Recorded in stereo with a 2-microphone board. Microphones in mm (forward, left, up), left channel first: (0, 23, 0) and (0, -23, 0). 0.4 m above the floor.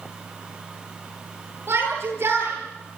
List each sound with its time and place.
1.7 s a shout: 60° right (ahead or behind), 10 m; by 3.0 s 55° right (ahead or behind), 10.5 m